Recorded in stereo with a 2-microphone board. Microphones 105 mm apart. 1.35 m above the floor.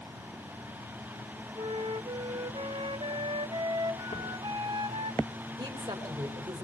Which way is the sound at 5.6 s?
60° right (ahead or behind).